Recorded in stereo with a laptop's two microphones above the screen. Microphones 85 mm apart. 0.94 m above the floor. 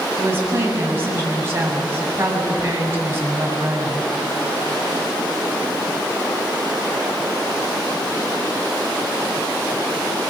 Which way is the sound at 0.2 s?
30° right (ahead or behind).